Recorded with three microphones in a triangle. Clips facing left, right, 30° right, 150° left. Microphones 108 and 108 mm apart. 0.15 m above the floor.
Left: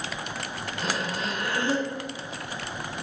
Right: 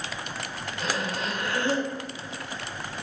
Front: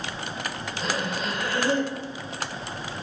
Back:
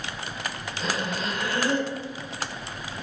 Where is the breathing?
55° left, 1.3 m.